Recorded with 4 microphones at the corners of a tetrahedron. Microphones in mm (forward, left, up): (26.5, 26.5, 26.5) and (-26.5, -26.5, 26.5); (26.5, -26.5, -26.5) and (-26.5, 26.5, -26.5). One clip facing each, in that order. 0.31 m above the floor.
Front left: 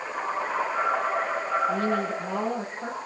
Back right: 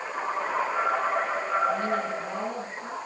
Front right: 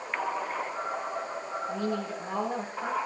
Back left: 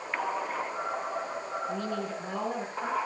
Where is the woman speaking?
40° left, 8 m.